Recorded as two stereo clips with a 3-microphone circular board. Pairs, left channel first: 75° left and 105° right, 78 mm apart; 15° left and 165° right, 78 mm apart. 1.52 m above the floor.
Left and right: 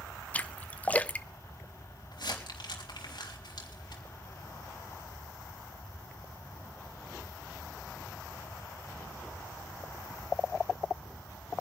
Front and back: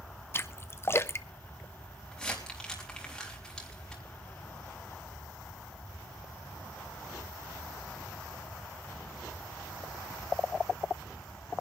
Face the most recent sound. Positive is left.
turn(degrees=95)